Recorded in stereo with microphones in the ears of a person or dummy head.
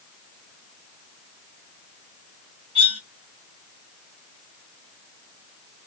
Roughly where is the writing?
I don't hear writing.